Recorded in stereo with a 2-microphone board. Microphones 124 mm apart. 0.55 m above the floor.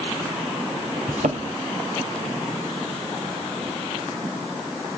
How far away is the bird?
I don't hear a bird.